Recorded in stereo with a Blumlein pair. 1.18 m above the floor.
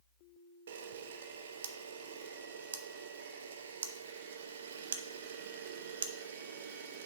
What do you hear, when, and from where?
0.7 s a camera shutter: 60° right, 0.6 m